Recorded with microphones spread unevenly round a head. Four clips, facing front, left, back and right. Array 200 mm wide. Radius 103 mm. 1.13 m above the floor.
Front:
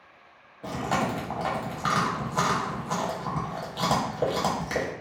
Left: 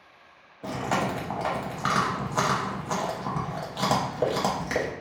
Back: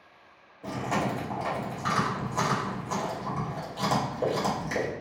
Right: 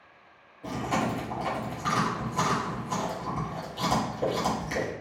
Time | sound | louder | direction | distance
0.6 | chewing | left 1 dB, front 2 dB | 55° left | 0.7 m